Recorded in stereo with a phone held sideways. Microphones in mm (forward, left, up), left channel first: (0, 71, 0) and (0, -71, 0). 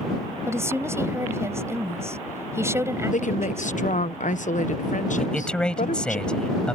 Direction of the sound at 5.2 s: 5° left (ahead or behind).